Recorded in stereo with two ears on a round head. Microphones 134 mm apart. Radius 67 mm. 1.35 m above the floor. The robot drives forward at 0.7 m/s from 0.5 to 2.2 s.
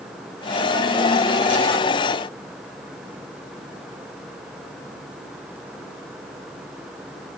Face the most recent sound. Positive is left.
No sound to turn to.